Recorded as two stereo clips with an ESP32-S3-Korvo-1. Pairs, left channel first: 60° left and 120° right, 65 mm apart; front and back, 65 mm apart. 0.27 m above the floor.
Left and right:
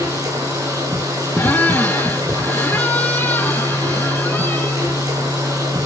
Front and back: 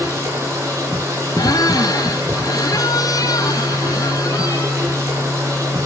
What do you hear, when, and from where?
0.0 s running water: 135° right, 7 m
1.4 s a squeak: straight ahead, 1.7 m